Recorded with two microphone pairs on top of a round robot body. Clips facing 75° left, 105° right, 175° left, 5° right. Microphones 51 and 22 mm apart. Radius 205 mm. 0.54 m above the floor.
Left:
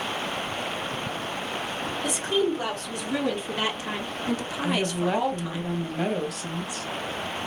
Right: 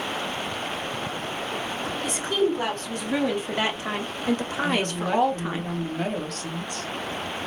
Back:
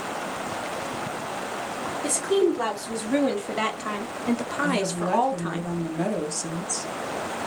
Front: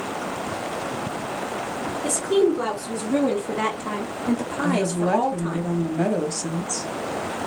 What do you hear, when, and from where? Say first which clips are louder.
2.0 s a woman speaking: right 1 dB, front 2 dB; 160° right, 2.5 m; by 5.6 s 130° right, 0.9 m
4.6 s a woman speaking: left 2 dB, front 4 dB; 10° right, 1.1 m